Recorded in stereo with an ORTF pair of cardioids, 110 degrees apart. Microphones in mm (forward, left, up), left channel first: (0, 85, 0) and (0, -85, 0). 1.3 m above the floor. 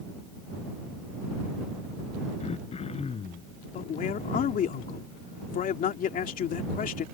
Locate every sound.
2.4 s throat clearing: 40° left
3.7 s a man speaking: 55° left